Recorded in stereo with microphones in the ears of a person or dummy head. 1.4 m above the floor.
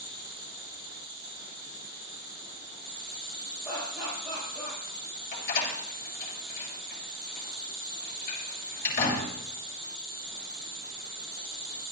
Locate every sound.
0.0 s an insect: 20° right (ahead or behind), 8.5 m
3.6 s laughter: centre (ahead or behind), 9 m
5.3 s a door slam: 50° left (ahead or behind), 7 m